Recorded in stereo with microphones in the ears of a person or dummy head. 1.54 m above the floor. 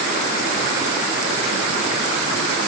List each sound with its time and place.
Only background noise.